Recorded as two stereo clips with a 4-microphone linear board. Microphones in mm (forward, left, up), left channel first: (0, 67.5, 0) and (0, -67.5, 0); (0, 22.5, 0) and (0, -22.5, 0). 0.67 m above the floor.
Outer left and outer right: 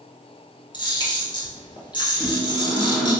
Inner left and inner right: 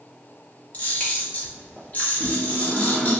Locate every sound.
0.7 s a camera shutter: 35° left (ahead or behind), 1.0 m
2.1 s a microwave: centre (ahead or behind), 1.8 m